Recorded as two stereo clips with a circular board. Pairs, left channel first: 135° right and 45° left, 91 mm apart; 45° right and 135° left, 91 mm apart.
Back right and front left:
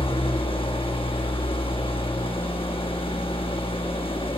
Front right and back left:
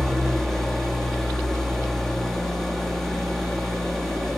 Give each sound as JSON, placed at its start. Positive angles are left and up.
{"t": 0.0, "sound": "an engine running", "azimuth_deg": -130, "distance_m": 1.1}